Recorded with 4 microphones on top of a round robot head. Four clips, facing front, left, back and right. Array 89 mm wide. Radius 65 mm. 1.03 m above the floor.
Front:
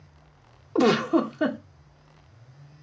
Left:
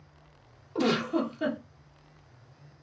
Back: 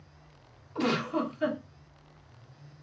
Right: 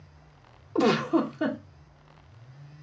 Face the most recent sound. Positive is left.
turn(degrees=-15)